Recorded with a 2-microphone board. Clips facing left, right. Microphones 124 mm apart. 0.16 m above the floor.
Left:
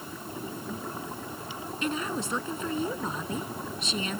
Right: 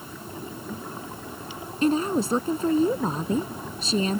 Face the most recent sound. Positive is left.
turn(degrees=-35)  # may be behind; listen again after turning